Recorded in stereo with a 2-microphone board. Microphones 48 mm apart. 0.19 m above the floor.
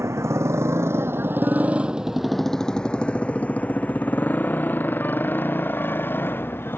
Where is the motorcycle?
85° right; by 6.8 s 50° left (ahead or behind).